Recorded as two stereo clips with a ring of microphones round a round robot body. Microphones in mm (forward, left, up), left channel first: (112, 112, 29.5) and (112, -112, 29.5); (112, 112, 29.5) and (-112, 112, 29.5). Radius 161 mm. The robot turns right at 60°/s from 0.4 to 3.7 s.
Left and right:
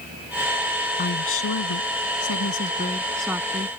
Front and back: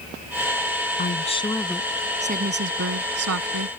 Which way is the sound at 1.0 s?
45° left.